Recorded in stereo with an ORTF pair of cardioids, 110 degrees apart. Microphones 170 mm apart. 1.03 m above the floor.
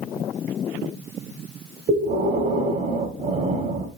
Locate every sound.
1.9 s breathing: 45° right, 3 m